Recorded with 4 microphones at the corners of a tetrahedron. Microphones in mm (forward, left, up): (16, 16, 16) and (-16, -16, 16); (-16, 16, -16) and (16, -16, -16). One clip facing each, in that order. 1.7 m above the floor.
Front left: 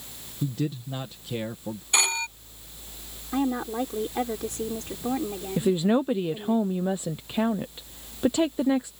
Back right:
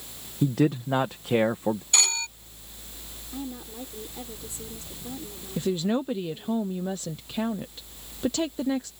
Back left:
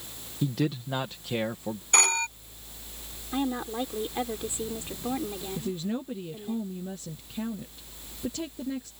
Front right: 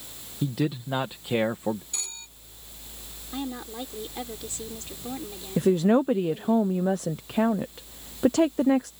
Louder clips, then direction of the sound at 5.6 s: Front left 4 dB, front right 14 dB; 25° right.